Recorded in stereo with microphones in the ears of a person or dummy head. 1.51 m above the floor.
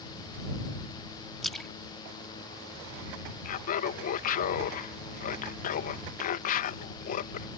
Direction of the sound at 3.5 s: 55° left (ahead or behind).